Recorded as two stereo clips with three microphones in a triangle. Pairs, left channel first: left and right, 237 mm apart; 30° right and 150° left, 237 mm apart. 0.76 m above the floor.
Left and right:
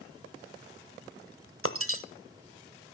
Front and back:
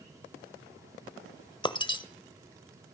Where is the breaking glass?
100° right, 0.9 m.